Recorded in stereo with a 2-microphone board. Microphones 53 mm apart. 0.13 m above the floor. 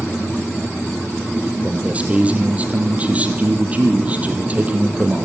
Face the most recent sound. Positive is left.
turn(degrees=-25)  # may be behind; listen again after turning